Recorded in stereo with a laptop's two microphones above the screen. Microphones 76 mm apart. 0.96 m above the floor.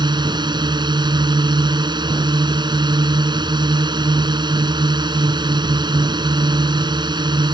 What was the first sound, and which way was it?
A drone, 70° right (ahead or behind).